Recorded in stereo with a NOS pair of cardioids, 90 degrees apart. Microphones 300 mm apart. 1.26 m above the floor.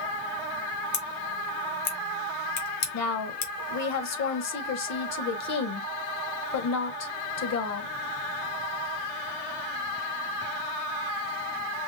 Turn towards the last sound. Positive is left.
turn(degrees=60)